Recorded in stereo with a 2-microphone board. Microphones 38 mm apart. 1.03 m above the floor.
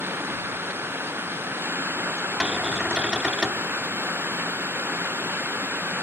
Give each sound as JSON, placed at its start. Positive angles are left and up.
{"t": 0.0, "sound": "running water", "side_deg": -85}
{"t": 2.4, "sound": "a cupboard door", "side_deg": -25}